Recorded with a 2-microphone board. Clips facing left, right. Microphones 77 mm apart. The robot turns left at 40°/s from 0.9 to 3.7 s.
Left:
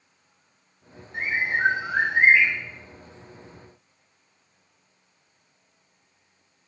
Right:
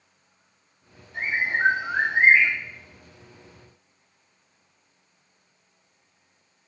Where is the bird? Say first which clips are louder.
Even; 105° left, 1.9 m; by 2.5 s 55° left, 1.9 m.